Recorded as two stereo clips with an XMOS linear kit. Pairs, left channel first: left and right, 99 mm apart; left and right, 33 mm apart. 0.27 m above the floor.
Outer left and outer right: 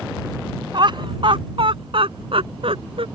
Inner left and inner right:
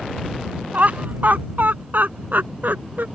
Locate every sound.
0.7 s laughter: 55° right (ahead or behind); by 3.0 s 70° right (ahead or behind)